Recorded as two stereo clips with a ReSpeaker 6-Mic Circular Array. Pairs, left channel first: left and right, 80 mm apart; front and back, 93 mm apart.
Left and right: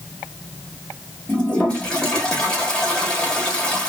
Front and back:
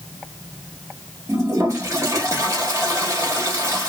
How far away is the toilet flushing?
About 1.4 m.